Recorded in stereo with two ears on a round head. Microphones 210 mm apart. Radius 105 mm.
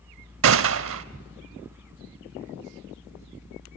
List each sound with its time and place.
0.4 s a gunshot: 65° right (ahead or behind), 0.6 m